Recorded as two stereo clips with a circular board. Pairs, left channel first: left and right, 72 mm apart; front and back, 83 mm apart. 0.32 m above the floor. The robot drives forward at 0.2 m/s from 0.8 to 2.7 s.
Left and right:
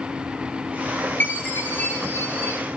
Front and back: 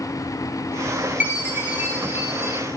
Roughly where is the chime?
Behind left.